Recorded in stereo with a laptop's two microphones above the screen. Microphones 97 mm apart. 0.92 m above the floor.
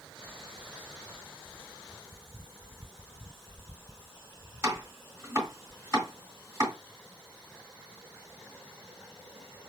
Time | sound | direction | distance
4.6 | chopping | 30° right (ahead or behind) | 3.5 m